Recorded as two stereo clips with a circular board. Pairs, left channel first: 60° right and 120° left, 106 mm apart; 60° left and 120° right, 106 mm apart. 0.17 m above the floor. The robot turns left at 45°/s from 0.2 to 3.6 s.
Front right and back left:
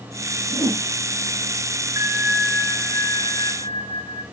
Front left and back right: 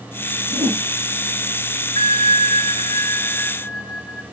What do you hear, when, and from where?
0.5 s a whoosh: 125° right, 1.1 m; by 0.8 s 140° right, 1.1 m
1.9 s a bell: 60° left, 0.8 m; by 4.2 s 10° right, 0.8 m